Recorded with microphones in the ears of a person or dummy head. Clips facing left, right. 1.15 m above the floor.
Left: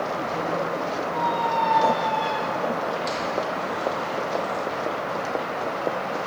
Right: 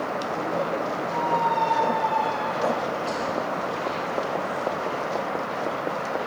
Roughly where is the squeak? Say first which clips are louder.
Right 2 dB; left.